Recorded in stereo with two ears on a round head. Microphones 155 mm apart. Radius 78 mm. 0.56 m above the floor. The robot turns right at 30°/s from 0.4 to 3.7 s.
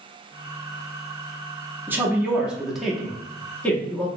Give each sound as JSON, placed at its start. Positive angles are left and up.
{"t": 1.9, "sound": "a woman speaking", "side_deg": -10, "distance_m": 0.6}